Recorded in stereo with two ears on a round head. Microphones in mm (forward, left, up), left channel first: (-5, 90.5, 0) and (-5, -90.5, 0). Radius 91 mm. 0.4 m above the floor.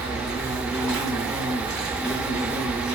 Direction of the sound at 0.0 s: 20° right (ahead or behind).